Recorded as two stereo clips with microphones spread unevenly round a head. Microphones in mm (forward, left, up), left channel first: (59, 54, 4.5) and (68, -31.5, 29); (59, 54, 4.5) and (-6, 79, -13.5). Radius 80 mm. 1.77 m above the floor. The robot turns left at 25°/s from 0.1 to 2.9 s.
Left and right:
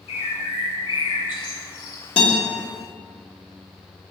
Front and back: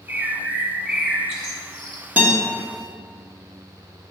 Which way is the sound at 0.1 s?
100° left.